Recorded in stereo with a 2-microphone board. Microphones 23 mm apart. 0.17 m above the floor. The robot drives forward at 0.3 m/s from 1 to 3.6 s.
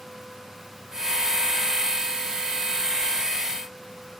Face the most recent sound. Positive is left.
No sound to turn to.